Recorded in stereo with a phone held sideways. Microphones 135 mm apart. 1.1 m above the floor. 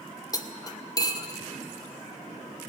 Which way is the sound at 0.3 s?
25° left (ahead or behind).